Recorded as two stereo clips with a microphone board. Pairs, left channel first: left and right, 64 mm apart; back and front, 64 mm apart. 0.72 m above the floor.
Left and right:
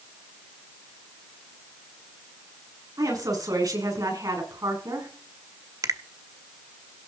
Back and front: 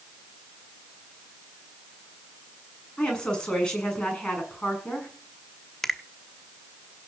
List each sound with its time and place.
3.0 s a woman speaking: 105° right, 6.5 m
5.8 s a finger snap: 95° right, 0.9 m